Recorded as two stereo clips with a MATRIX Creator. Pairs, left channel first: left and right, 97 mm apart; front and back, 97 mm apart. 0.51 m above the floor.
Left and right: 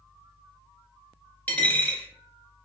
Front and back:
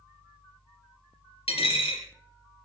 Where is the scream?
I don't hear a scream.